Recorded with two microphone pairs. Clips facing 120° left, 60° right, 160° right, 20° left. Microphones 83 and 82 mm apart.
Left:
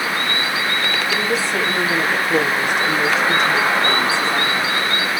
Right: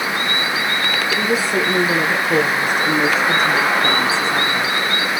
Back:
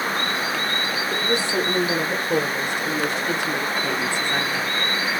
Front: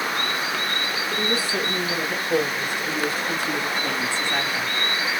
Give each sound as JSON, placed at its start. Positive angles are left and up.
{"t": 1.1, "sound": "a woman speaking", "azimuth_deg": -95, "distance_m": 3.5}